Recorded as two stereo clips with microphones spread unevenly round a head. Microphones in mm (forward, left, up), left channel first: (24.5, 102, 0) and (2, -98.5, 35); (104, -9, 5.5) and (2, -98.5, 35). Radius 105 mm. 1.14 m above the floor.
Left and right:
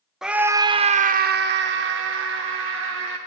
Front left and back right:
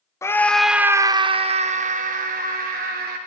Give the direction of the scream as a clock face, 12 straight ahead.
12 o'clock.